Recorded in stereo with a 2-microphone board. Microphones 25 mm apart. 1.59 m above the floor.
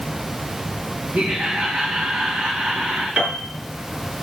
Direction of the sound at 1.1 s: 70° right (ahead or behind).